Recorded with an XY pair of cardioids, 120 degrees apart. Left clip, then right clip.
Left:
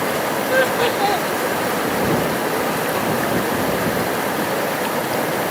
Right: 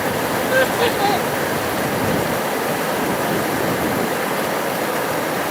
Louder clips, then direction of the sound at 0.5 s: Even; 5° right.